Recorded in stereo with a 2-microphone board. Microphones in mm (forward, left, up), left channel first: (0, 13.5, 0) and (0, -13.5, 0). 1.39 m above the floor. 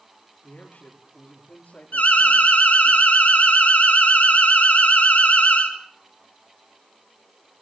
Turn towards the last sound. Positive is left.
turn(degrees=85)